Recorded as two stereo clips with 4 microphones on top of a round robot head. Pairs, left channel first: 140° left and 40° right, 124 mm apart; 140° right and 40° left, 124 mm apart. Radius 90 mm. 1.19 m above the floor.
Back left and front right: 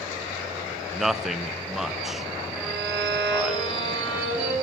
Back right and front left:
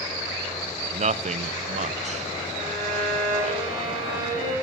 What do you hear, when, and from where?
0.9 s a man speaking: 50° left, 0.6 m
2.5 s a violin: 45° left, 8 m